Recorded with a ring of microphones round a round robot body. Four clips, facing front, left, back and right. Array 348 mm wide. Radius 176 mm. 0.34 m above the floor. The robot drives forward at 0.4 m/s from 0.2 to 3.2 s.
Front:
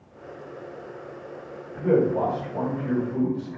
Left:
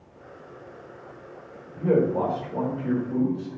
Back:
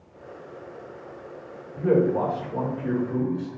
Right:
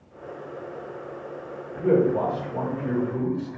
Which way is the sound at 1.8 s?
150° right.